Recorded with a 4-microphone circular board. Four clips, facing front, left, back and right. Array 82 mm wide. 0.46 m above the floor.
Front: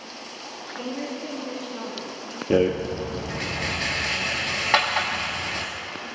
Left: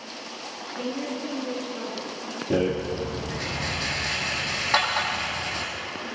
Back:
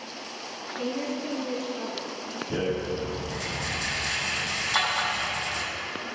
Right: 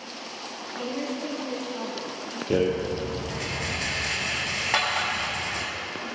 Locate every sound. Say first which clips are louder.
0.8 s a woman speaking: even, back 1 dB; 70° right, 3.5 m
2.5 s a rattle: right 1 dB, front 8 dB; 5° right, 1.7 m